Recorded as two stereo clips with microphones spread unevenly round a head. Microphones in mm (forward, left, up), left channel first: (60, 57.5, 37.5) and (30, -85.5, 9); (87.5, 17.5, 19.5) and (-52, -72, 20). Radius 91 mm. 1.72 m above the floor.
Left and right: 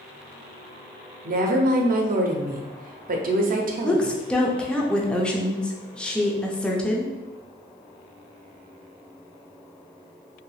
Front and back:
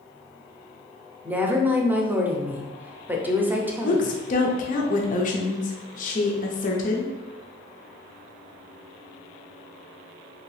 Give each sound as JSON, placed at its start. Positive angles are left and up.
{"t": 1.2, "sound": "a woman speaking", "azimuth_deg": -70, "distance_m": 0.7}
{"t": 3.8, "sound": "a woman speaking", "azimuth_deg": 5, "distance_m": 0.6}